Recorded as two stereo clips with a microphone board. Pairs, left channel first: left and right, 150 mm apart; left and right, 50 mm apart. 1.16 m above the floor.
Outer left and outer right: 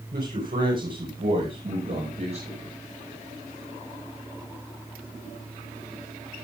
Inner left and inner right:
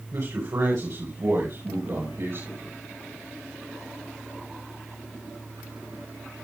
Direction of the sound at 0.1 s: 80° right.